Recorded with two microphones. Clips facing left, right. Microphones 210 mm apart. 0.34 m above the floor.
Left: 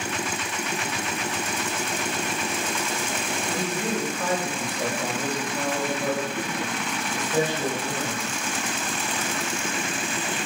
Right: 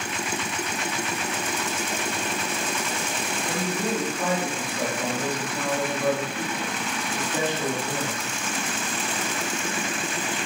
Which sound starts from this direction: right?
A man speaking, at 3.5 s.